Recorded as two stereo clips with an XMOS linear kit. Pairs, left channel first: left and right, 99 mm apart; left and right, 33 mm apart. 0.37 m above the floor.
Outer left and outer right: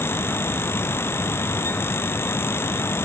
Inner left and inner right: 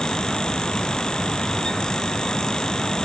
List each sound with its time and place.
Only background noise.